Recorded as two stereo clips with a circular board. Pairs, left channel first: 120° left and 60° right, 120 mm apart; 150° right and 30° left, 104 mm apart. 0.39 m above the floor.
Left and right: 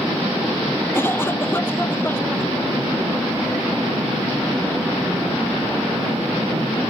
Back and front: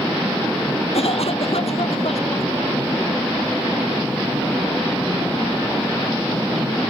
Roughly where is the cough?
Behind.